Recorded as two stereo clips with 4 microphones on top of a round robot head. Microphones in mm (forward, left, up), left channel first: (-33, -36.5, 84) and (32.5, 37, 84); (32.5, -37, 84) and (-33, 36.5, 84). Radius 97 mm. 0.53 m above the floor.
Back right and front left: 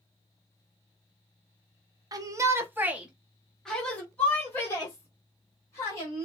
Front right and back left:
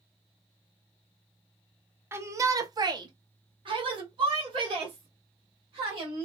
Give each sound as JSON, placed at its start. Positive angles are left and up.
{"t": 2.1, "sound": "a shout", "azimuth_deg": 75, "distance_m": 0.9}